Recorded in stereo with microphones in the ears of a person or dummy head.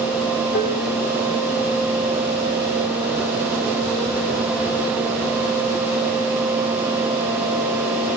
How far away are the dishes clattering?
About 1.1 m.